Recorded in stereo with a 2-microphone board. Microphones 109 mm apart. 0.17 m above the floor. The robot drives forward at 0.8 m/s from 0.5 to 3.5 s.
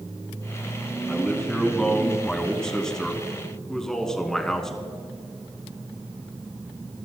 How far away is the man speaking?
About 1.5 m.